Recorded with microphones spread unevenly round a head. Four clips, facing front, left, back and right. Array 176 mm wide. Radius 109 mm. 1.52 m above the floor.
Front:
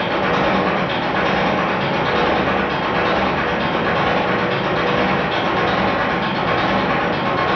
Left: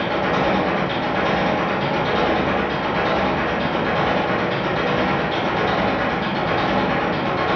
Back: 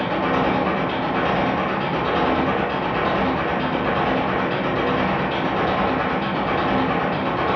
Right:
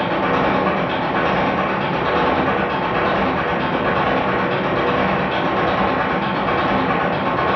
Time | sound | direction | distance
0.0 | an engine running | 55° right | 1.4 m